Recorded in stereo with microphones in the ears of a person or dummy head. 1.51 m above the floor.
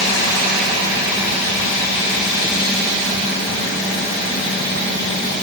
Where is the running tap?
No running tap in this recording.